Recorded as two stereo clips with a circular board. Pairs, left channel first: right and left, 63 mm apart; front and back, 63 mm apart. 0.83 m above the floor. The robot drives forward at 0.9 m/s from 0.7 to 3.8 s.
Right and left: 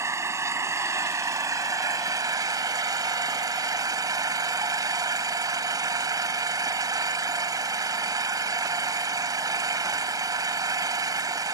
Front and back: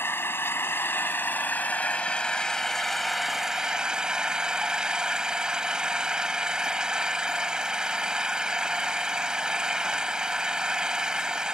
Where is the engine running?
50° left; by 11.6 s 105° left.